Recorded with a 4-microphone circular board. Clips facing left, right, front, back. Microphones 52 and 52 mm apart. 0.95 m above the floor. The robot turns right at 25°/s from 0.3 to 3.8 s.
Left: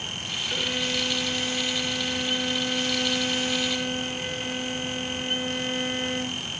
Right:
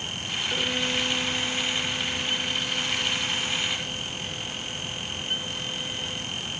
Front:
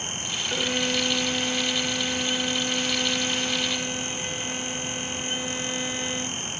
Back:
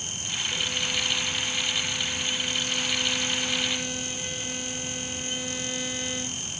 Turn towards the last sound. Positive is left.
turn(degrees=75)